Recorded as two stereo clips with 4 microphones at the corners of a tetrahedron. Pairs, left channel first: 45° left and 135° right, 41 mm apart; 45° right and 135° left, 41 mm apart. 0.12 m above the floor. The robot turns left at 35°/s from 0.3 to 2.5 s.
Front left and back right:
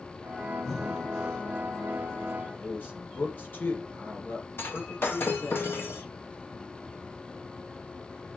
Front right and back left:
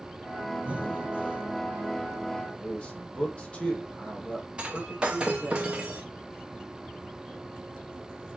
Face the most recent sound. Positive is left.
turn(degrees=70)